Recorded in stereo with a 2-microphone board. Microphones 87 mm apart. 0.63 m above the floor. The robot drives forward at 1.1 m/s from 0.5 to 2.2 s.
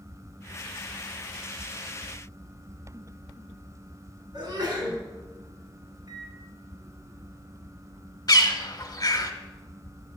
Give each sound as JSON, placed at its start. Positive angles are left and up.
{"t": 4.3, "sound": "a sneeze", "side_deg": -50, "distance_m": 5.5}
{"t": 6.1, "sound": "a microwave", "side_deg": -50, "distance_m": 1.3}
{"t": 8.3, "sound": "a bird", "side_deg": 45, "distance_m": 1.2}